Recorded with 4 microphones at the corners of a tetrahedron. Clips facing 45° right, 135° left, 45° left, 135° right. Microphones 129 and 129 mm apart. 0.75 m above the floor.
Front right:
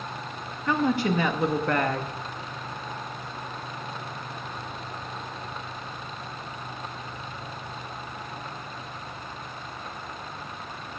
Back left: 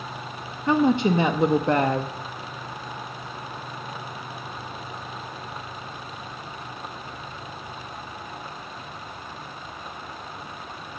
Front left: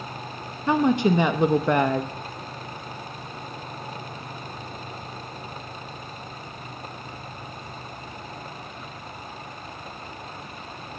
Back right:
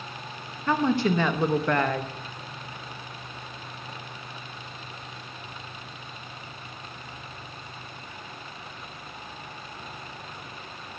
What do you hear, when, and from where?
0.7 s a woman speaking: 100° left, 0.5 m